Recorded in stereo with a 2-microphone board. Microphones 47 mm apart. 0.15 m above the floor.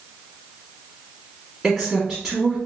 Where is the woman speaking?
5° right (ahead or behind), 1.5 m.